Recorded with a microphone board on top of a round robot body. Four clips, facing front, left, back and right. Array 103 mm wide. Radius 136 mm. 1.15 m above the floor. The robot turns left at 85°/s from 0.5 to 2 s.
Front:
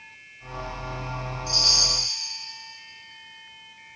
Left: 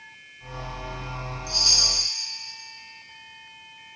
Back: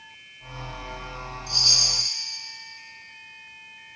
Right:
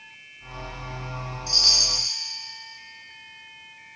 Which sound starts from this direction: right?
A chime, at 1.5 s.